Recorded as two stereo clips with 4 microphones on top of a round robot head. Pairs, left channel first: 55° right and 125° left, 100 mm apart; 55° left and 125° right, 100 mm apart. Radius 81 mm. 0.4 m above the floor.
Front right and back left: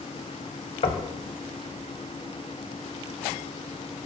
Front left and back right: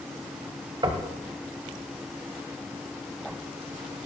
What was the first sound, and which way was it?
Knocking, 80° right.